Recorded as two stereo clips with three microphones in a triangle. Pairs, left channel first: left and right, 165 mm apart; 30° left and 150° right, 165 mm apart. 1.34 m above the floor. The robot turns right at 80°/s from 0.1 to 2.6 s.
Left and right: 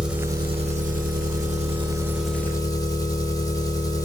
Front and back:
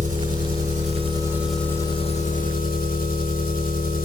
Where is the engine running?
175° right, 1.0 m; by 4.0 s 25° left, 1.0 m.